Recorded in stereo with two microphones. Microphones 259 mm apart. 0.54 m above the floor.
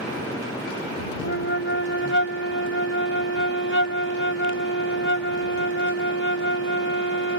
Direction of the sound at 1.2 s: 50° left (ahead or behind).